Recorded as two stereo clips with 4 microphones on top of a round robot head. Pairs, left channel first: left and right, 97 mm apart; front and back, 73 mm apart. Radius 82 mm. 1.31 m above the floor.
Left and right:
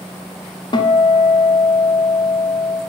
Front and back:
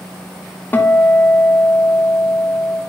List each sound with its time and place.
0.7 s a guitar: 60° left, 0.6 m